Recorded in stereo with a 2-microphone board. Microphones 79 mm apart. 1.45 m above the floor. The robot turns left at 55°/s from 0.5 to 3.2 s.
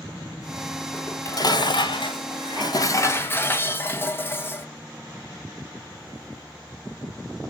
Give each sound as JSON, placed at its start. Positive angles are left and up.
{"t": 0.9, "sound": "dishes clattering", "azimuth_deg": 155, "distance_m": 1.0}